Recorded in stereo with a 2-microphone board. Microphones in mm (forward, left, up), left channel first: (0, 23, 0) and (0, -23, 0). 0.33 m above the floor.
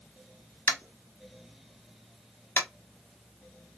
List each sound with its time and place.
0.7 s tapping: 50° left (ahead or behind), 1.0 m